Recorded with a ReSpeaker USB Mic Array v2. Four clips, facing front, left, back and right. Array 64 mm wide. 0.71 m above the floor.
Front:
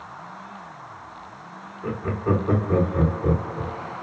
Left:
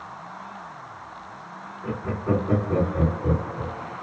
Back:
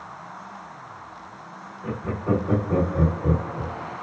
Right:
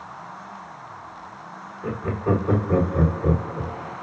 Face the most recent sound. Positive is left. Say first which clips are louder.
# right 2 dB, front 2 dB
turn(degrees=-30)